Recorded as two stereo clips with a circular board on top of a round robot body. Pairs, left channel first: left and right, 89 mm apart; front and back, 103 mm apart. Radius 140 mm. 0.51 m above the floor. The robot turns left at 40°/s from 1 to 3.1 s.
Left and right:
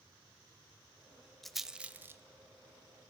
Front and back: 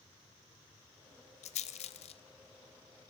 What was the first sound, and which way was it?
A rattle, 5° left.